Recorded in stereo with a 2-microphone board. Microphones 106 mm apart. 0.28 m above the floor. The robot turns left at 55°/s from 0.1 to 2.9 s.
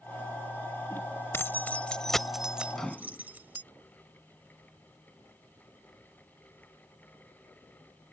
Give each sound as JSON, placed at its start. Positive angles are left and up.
{"t": 1.3, "sound": "keys jangling", "side_deg": 20}
{"t": 2.7, "sound": "a microwave", "side_deg": 0}